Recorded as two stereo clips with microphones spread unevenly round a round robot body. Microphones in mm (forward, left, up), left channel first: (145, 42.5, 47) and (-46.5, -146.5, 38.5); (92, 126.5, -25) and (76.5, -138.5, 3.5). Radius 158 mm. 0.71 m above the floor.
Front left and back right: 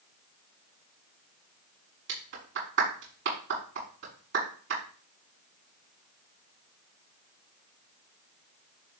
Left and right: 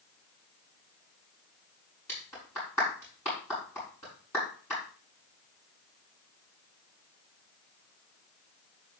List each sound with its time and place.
2.1 s a clap: 170° left, 6 m